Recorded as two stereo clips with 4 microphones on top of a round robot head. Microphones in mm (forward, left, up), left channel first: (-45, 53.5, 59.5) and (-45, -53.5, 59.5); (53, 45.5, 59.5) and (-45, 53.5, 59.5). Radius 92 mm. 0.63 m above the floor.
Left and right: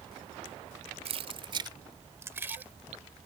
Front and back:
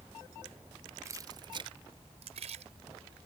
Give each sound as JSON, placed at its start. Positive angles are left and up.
{"t": 1.1, "sound": "keys jangling", "azimuth_deg": -120}